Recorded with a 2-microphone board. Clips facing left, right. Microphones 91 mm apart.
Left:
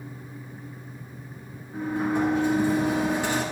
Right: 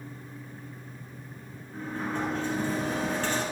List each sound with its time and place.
1.7 s a sliding door: 15° left (ahead or behind), 7 m